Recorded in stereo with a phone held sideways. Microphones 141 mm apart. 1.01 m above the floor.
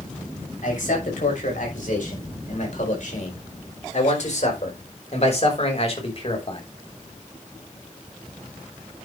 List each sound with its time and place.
0.6 s a man speaking: 70° left (ahead or behind), 6 m; by 6.6 s 40° left (ahead or behind), 3 m